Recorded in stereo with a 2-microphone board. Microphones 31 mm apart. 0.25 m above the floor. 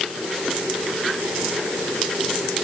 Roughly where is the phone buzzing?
No phone buzzing in this recording.